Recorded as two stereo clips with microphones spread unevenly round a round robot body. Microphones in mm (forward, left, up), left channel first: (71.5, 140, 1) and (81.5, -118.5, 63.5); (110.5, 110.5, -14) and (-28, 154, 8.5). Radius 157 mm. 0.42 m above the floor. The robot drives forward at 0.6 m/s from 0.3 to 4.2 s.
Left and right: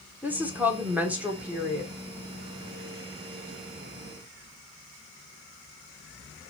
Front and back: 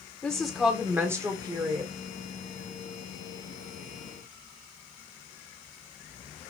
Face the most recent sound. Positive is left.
turn(degrees=175)